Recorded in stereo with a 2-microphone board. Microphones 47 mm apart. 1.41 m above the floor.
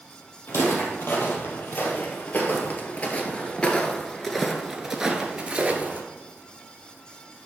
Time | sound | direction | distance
0.5 | footsteps | 55° left (ahead or behind) | 3 m